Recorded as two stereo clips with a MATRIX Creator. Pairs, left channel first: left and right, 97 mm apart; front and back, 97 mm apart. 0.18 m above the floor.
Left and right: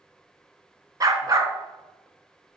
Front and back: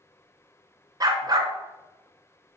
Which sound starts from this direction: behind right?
A dog barking, at 1.0 s.